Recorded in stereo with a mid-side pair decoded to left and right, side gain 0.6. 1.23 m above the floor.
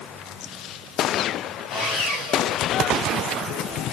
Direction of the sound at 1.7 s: 65° left.